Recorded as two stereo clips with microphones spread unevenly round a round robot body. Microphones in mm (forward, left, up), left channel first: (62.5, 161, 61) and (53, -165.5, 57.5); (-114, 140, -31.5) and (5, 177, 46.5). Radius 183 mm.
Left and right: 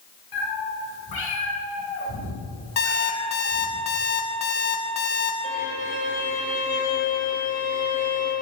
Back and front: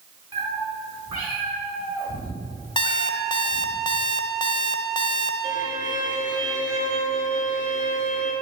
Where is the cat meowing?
65° left, 5 m; by 3.8 s 85° left, 6.5 m.